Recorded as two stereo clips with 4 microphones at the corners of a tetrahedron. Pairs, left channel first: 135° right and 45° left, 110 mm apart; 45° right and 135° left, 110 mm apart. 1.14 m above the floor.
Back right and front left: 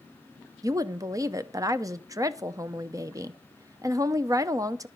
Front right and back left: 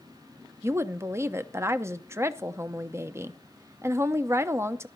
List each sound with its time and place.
0.6 s a woman speaking: 85° left, 0.7 m